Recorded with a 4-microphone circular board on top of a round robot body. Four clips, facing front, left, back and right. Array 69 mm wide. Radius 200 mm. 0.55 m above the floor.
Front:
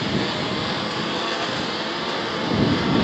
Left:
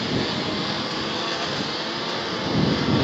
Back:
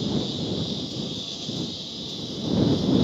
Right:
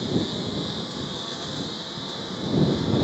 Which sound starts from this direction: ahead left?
A lawn mower, at 0.0 s.